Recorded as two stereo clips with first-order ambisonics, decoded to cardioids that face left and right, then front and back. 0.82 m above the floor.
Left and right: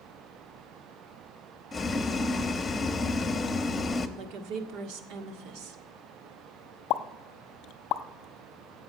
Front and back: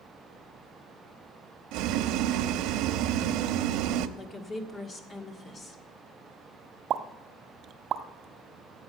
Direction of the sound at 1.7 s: 165° left.